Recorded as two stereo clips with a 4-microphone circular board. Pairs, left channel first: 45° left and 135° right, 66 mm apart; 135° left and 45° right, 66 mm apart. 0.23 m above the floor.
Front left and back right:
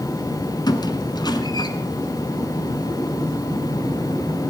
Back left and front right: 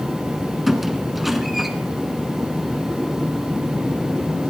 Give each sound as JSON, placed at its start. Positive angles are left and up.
{"t": 0.7, "sound": "a squeak", "azimuth_deg": 45, "distance_m": 1.1}